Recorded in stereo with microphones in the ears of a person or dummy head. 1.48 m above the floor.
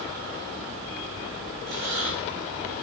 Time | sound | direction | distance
1.7 | breathing | 65° right (ahead or behind) | 3 m